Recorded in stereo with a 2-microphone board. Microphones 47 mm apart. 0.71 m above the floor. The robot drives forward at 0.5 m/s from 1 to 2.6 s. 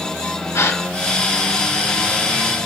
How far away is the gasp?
About 2 m.